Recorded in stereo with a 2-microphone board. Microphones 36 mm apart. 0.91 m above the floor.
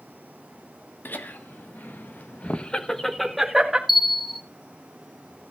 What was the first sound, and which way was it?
Laughter, 65° left (ahead or behind).